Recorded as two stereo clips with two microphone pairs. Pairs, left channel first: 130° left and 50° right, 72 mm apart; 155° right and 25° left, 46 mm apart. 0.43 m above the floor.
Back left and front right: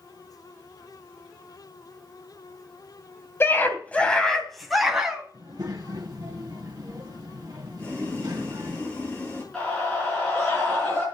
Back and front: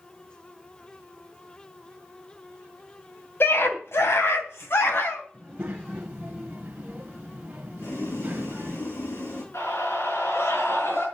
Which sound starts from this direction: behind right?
A scream, at 9.5 s.